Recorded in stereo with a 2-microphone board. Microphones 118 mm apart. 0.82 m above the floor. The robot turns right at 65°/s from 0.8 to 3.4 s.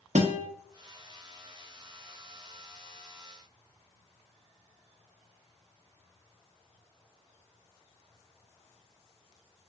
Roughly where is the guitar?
Right.